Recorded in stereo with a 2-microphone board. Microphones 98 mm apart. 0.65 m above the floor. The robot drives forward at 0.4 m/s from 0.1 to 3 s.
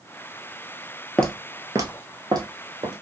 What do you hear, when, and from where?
1.2 s footsteps: 10° left (ahead or behind), 0.7 m; by 2.9 s 45° right (ahead or behind), 2 m